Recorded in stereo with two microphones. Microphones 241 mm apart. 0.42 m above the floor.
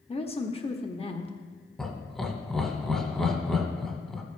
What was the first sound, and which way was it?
A woman speaking, 25° left (ahead or behind).